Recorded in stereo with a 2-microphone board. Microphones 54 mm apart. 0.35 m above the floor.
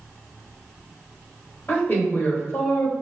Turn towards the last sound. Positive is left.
turn(degrees=40)  # may be behind; listen again after turning